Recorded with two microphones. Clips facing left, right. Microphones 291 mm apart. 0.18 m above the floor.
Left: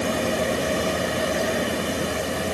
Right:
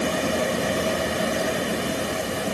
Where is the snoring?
No snoring in this recording.